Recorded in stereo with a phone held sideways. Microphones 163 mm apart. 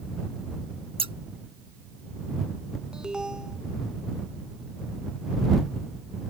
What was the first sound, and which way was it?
Scissors, 35° right (ahead or behind).